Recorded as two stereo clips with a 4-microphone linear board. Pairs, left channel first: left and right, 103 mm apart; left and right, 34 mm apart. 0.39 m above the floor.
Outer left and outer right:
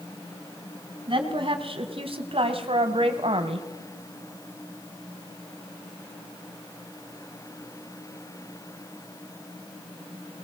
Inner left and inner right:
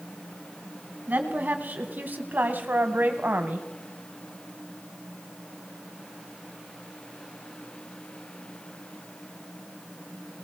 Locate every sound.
1.1 s a woman speaking: 55° right (ahead or behind), 3.5 m; by 3.7 s 65° right (ahead or behind), 2.5 m